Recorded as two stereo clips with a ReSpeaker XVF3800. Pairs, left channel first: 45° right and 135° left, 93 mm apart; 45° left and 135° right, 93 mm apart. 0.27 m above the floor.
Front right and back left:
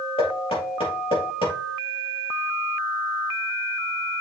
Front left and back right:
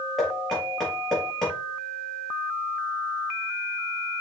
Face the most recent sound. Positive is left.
turn(degrees=-40)